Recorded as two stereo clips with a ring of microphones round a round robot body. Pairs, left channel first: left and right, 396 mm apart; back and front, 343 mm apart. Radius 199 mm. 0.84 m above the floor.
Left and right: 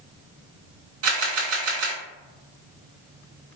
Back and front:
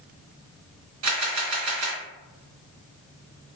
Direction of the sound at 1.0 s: 40° right.